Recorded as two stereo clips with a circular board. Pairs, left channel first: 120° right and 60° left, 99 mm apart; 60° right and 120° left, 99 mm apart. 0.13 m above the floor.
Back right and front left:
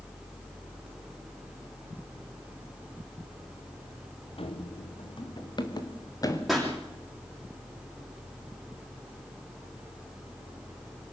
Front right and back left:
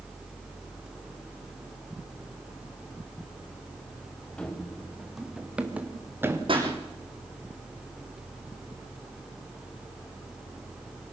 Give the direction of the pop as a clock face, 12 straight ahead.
7 o'clock.